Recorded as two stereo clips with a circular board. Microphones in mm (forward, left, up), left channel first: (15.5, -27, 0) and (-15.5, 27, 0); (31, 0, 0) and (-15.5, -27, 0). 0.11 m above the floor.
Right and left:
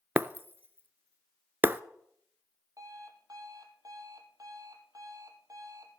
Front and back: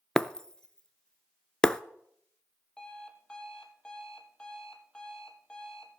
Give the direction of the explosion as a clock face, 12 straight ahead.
I don't hear an explosion.